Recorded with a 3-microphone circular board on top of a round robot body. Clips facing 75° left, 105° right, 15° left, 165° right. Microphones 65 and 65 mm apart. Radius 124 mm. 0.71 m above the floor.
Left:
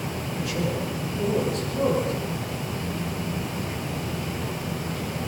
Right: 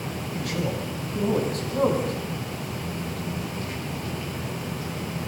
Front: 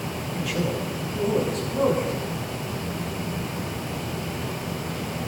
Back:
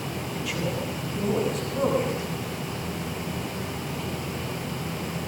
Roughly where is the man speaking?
Right.